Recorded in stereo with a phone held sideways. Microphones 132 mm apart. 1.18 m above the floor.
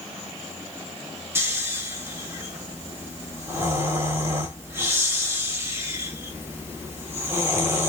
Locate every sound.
1.4 s snoring: 20° right (ahead or behind), 1.3 m